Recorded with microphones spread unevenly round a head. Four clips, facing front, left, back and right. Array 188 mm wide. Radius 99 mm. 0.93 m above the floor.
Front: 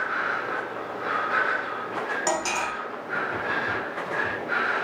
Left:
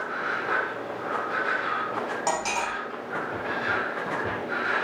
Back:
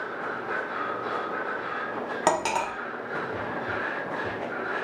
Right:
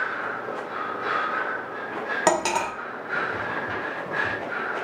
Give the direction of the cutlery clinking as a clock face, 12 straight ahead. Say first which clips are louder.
Right 7 dB, back 5 dB; 3 o'clock.